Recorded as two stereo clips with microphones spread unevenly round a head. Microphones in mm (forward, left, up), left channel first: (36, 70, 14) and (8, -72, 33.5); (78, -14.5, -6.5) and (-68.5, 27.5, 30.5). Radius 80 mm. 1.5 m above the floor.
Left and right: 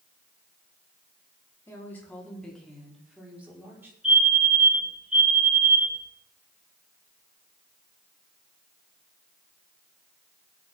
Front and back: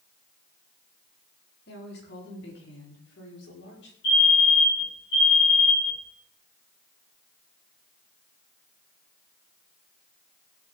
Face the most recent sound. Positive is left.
turn(degrees=-15)